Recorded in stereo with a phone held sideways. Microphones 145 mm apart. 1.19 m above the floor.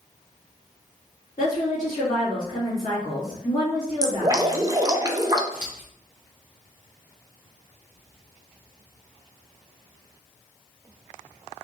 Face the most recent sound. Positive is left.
turn(degrees=65)  # may be behind; listen again after turning